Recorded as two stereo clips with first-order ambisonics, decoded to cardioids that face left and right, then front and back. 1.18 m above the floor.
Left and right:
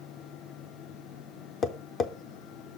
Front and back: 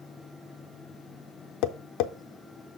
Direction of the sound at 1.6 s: 25° left.